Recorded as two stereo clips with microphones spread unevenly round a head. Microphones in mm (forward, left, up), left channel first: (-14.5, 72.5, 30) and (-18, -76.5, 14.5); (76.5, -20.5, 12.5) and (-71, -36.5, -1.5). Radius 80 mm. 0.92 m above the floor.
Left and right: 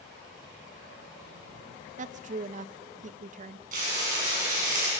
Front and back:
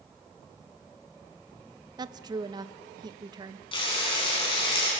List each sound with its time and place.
2.0 s a woman speaking: 115° right, 0.7 m
3.7 s frying: 50° right, 8 m